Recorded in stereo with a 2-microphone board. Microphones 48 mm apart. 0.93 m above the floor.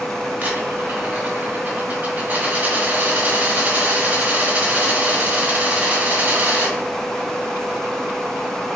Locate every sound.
0.4 s a dropped coin: 40° right (ahead or behind), 1.7 m